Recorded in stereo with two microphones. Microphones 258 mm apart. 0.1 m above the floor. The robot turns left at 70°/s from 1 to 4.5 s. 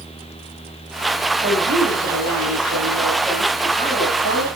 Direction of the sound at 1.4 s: 35° right.